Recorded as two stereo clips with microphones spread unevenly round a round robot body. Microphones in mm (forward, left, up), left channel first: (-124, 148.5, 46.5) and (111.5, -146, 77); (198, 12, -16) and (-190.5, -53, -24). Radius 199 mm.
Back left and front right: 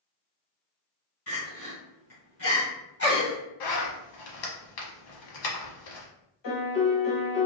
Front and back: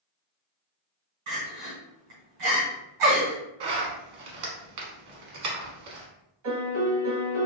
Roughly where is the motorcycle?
I don't hear a motorcycle.